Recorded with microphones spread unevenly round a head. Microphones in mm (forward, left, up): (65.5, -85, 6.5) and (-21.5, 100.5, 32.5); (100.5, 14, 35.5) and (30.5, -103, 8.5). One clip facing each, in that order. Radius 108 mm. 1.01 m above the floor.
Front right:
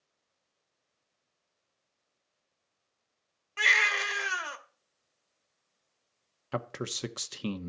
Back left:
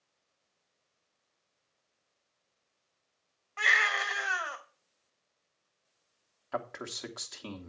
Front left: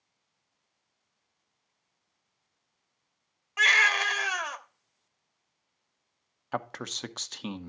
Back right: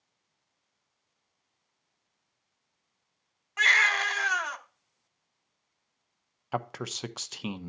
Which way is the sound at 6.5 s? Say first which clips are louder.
Front right 3 dB, back right 1 dB; 50° right.